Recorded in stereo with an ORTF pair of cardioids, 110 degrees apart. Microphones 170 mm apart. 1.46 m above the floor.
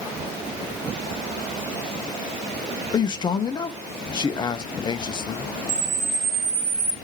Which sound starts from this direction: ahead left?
A man speaking, at 2.9 s.